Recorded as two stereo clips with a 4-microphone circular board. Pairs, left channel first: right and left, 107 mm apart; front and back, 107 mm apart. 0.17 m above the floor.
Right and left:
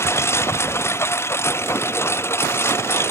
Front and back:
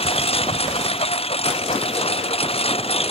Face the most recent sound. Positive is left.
turn(degrees=-25)